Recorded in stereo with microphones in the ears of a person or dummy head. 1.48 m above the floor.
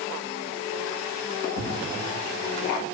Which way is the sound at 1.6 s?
80° right.